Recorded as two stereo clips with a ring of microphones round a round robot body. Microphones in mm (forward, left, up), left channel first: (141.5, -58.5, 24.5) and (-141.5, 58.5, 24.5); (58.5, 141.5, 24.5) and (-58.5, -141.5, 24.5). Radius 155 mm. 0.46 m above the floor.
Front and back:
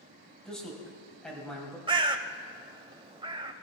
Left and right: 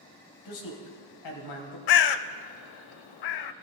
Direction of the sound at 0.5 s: 65° left.